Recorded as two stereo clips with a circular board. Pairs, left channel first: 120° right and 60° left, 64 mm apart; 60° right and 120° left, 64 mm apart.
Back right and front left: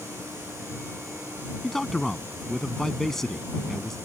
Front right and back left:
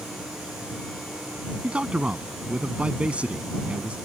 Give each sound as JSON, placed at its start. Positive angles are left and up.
{"t": 1.6, "sound": "a man speaking", "azimuth_deg": 160}